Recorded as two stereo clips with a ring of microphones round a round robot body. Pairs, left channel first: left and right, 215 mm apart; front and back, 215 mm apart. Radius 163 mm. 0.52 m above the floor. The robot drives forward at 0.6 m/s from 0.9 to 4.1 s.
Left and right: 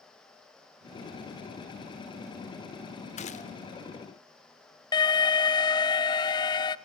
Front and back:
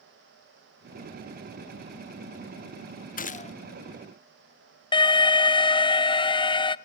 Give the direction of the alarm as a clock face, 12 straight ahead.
11 o'clock.